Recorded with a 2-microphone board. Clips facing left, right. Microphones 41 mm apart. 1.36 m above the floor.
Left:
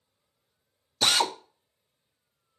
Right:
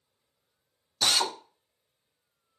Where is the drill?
35° left (ahead or behind), 0.5 m.